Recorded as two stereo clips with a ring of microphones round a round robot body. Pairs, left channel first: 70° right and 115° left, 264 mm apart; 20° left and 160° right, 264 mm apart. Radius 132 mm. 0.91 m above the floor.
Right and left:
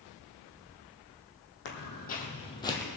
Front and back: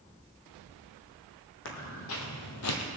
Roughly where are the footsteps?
Ahead.